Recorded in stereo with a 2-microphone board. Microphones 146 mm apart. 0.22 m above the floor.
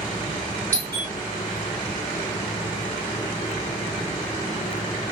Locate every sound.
0.7 s a doorbell: 15° left (ahead or behind), 2 m